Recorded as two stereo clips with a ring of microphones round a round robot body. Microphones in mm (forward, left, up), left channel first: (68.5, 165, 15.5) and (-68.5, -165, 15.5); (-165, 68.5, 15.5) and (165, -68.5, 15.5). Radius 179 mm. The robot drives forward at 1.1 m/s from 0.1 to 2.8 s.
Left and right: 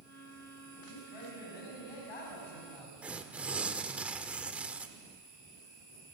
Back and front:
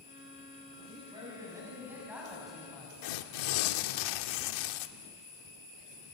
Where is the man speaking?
55° left, 7 m; by 2.9 s 70° left, 6 m.